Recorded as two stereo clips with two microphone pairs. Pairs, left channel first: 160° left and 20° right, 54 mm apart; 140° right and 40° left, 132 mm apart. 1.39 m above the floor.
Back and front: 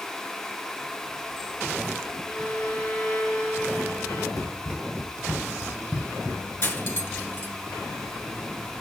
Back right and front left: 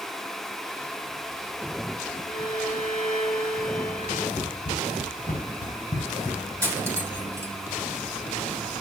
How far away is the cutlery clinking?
About 3.5 m.